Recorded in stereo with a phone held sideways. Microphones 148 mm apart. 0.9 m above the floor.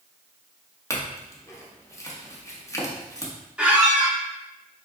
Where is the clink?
20° left (ahead or behind), 0.7 m.